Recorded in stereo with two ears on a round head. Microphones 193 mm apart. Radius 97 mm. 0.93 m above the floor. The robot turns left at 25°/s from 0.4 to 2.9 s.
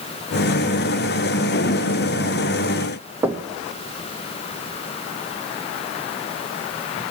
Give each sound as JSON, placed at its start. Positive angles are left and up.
{"t": 3.2, "sound": "knocking", "side_deg": -10, "distance_m": 0.9}